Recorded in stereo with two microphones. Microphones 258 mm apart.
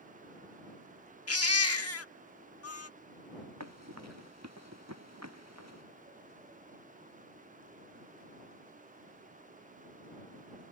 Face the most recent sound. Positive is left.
turn(degrees=-80)